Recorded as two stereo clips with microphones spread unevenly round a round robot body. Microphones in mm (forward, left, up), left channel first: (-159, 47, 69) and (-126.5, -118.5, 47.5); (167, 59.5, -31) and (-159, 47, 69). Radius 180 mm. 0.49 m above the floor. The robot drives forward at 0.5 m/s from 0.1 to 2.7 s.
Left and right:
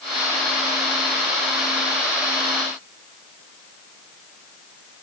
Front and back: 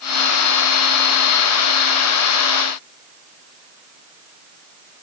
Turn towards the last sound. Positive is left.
No sound to turn to.